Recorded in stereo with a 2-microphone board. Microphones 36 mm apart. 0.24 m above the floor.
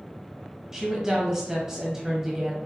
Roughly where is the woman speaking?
Centre.